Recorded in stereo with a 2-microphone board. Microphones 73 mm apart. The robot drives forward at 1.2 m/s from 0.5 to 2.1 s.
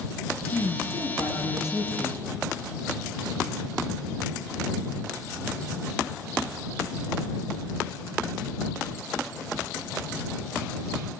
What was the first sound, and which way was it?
A woman speaking, 45° left (ahead or behind).